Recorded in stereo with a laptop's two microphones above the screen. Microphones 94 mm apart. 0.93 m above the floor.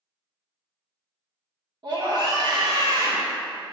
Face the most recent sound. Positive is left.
turn(degrees=-50)  # may be behind; listen again after turning